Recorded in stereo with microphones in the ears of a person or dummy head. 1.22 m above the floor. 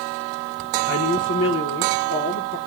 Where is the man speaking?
65° left (ahead or behind), 1.2 m.